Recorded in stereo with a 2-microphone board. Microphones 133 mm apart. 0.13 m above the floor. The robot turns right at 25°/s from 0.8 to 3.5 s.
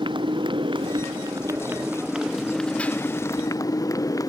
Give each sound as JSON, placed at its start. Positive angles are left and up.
{"t": 0.0, "sound": "a motorcycle", "azimuth_deg": -40}